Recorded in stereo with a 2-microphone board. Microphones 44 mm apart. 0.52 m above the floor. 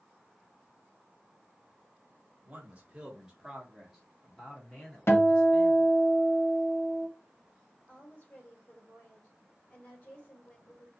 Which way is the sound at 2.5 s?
30° right (ahead or behind).